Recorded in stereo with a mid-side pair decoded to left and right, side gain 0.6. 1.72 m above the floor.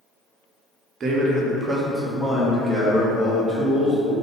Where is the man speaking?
45° right, 1.0 m; by 4.1 s 25° left, 1.7 m.